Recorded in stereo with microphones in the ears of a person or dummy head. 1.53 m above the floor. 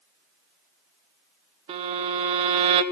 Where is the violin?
30° right (ahead or behind), 0.5 m.